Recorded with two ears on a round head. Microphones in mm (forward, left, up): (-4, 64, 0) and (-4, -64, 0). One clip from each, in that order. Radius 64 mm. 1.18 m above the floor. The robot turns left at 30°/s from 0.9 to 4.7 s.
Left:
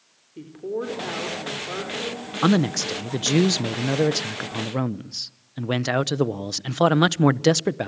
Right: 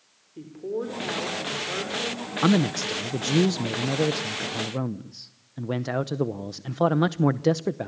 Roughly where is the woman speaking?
Ahead left.